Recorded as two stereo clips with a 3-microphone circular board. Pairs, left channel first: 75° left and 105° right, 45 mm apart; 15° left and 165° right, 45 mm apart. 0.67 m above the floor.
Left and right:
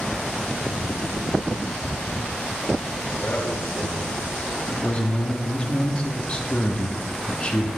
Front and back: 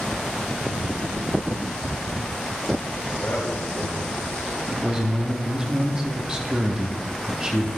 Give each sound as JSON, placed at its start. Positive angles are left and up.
{"t": 3.0, "sound": "a man speaking", "azimuth_deg": 70, "distance_m": 3.0}
{"t": 4.7, "sound": "a man speaking", "azimuth_deg": 125, "distance_m": 1.0}